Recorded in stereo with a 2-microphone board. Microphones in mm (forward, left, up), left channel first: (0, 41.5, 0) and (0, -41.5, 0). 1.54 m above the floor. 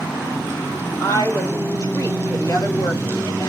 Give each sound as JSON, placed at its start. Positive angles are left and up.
{"t": 1.0, "sound": "a woman speaking", "side_deg": 45, "distance_m": 1.8}